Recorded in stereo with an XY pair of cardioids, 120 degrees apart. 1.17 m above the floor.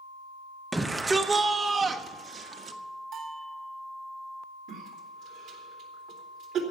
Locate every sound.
0.7 s a shout: 10° right, 0.9 m; by 2.8 s 45° right, 1.7 m
3.1 s a bell: 65° right, 3 m
4.7 s a cough: 65° right, 3 m